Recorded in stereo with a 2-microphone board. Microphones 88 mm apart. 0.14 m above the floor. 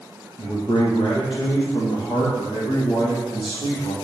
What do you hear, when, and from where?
0.4 s a man speaking: 65° left (ahead or behind), 4.5 m; by 3.9 s 55° left (ahead or behind), 6.5 m